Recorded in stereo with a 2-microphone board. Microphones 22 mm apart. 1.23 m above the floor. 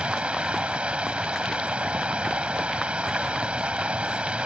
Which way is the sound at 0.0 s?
70° right (ahead or behind).